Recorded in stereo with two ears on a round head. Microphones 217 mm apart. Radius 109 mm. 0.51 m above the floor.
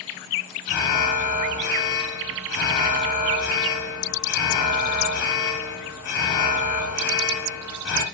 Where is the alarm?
65° left (ahead or behind), 4.5 m.